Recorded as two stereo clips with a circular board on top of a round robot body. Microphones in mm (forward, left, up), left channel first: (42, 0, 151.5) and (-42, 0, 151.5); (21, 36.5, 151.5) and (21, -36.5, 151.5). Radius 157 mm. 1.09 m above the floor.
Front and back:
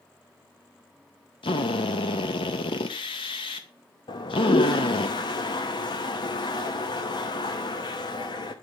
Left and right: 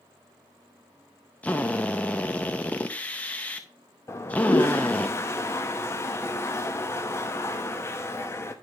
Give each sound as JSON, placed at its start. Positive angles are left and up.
{"t": 1.4, "sound": "a drill", "azimuth_deg": 20, "distance_m": 0.5}
{"t": 4.1, "sound": "a toilet flushing", "azimuth_deg": 35, "distance_m": 0.8}